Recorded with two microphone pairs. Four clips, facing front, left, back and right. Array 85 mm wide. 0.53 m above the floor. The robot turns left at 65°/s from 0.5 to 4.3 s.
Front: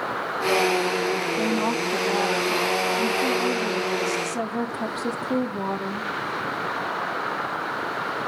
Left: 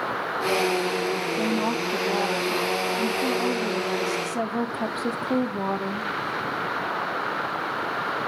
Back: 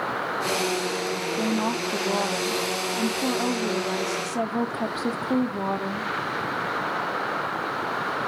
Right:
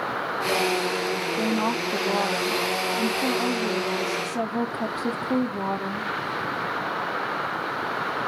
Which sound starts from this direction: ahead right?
A woman speaking, at 1.4 s.